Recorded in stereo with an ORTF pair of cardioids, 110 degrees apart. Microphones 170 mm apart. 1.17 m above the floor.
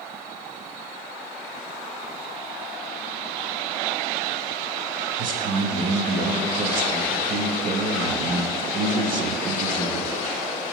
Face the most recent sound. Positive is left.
turn(degrees=-55)